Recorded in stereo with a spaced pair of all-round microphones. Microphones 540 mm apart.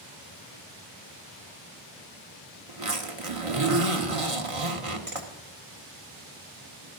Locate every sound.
2.7 s a zipper: 70° right (ahead or behind), 1.3 m